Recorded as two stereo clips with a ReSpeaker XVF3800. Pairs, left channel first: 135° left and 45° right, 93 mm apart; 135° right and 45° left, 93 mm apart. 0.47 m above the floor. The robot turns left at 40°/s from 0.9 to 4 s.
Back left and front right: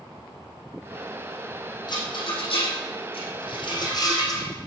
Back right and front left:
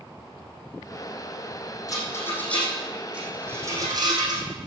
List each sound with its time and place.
1.9 s a rattle: 175° left, 4 m; by 4.4 s 90° left, 4 m